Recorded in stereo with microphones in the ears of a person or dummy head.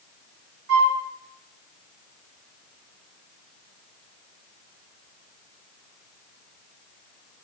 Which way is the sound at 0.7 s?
60° right (ahead or behind).